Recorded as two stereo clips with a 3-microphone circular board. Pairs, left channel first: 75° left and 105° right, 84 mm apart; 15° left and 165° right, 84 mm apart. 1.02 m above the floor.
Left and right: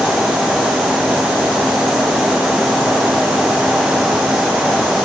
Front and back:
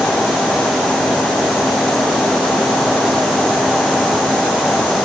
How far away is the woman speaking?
I don't hear a woman speaking.